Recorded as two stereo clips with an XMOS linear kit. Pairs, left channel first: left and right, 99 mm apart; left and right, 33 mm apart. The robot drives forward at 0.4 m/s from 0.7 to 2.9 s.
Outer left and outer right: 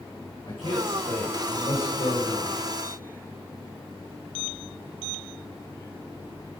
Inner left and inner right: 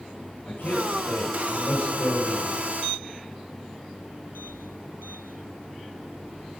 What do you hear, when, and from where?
0.5 s a man speaking: 65° left (ahead or behind), 5 m; by 2.6 s 60° left (ahead or behind), 5 m